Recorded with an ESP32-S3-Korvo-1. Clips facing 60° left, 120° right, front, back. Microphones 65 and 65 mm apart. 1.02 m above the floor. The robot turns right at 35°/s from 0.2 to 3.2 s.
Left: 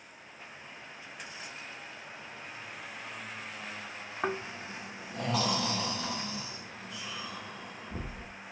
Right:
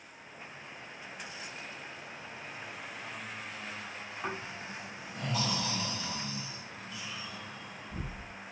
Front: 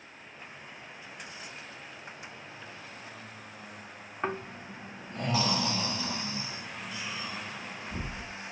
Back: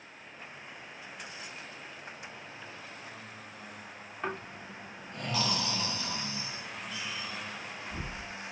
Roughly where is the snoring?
Ahead left.